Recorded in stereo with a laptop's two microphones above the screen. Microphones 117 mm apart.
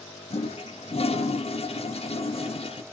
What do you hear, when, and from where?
0.3 s a toilet flushing: 55° left (ahead or behind), 0.6 m